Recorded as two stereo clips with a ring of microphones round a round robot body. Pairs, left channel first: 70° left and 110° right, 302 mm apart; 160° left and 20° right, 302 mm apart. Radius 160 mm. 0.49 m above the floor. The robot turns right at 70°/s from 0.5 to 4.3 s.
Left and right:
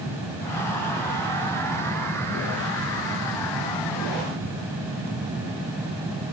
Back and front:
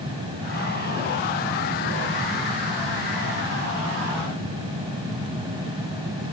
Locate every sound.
Only background noise.